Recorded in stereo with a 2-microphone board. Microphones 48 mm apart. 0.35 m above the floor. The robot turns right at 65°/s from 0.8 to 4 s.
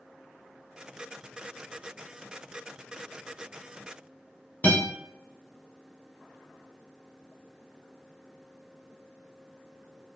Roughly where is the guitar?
Left.